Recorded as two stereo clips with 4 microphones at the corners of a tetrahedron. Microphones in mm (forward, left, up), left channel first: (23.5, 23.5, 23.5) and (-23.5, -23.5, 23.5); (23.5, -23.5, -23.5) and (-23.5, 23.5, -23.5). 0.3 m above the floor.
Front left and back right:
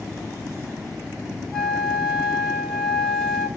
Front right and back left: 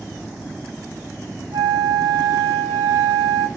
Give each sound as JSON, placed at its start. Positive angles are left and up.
{"t": 1.5, "sound": "a flute", "azimuth_deg": 130, "distance_m": 1.0}